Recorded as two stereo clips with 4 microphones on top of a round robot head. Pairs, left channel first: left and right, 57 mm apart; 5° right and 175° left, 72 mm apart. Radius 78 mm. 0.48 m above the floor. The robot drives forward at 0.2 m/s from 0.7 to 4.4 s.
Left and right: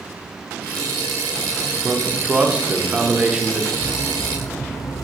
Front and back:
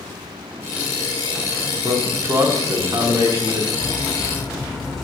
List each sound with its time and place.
1.8 s a man speaking: 145° right, 0.9 m; by 3.6 s 160° right, 1.2 m
3.7 s cutlery clinking: 75° left, 0.9 m; by 5.0 s 80° left, 0.9 m